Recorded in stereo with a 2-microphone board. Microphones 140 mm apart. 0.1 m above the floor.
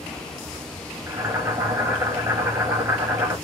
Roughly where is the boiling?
Centre.